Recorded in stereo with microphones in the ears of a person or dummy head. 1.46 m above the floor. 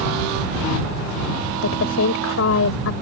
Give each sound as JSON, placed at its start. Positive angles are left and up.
{"t": 1.6, "sound": "a woman speaking", "side_deg": 80}